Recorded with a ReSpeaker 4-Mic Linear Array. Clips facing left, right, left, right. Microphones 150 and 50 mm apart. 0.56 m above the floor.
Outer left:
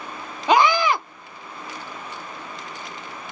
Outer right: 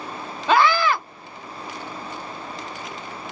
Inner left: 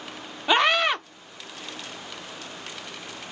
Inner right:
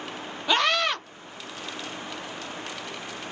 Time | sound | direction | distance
0.5 | a scream | 15° left (ahead or behind) | 0.7 m